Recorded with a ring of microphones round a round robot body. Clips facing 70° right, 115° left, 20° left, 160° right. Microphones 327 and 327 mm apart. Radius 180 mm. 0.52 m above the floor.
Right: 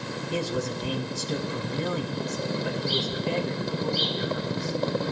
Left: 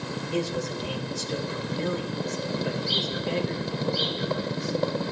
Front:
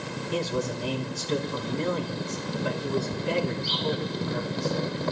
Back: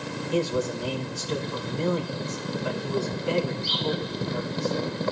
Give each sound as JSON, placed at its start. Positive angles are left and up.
{"t": 0.3, "sound": "a man speaking", "azimuth_deg": -40, "distance_m": 4.5}